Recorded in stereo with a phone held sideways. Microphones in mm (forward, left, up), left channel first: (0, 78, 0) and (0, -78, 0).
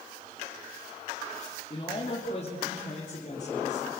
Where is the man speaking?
35° left (ahead or behind), 3 m; by 3.9 s 60° left (ahead or behind), 5 m.